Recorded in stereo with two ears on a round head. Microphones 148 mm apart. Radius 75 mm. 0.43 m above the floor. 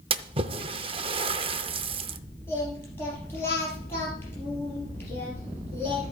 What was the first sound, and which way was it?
A splash, 35° right (ahead or behind).